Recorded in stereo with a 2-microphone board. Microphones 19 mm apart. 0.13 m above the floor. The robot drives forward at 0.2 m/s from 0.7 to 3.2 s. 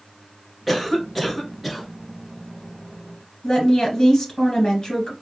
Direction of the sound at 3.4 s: 40° left (ahead or behind).